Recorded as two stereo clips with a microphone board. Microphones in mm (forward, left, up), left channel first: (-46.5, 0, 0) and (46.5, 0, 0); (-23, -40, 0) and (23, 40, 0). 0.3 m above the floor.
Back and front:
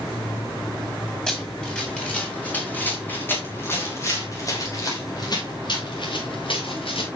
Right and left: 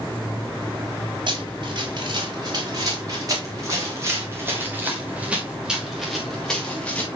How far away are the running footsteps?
About 7 m.